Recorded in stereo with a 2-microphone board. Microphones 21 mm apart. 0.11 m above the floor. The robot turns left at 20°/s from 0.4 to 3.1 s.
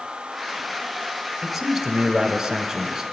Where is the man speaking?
5° right (ahead or behind), 1.1 m; by 3.0 s 15° right (ahead or behind), 1.1 m.